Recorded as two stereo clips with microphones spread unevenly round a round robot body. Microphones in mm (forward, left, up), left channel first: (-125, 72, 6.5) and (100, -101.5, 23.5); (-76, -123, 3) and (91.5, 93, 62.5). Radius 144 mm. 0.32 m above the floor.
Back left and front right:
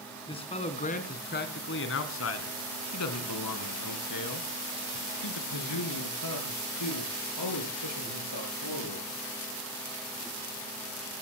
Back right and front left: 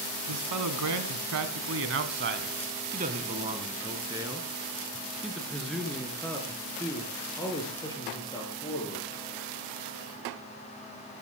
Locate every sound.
0.3 s a man speaking: 70° left, 3 m; by 9.1 s 160° left, 7 m